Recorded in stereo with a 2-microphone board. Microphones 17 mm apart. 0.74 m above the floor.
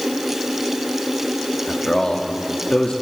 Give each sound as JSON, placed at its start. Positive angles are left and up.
{"t": 1.7, "sound": "a man speaking", "side_deg": 60, "distance_m": 1.2}